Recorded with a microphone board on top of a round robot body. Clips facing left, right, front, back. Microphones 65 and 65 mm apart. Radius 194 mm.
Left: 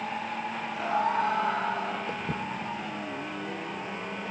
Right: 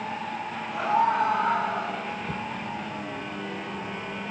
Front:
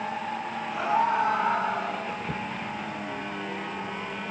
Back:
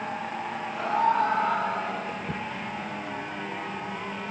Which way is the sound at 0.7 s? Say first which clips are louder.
Right 4 dB, even; 70° right.